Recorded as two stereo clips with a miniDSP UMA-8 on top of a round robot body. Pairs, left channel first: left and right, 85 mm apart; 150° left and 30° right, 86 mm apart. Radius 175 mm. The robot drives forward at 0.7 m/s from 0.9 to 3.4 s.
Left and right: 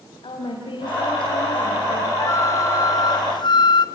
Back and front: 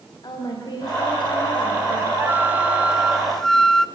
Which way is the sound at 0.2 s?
110° left.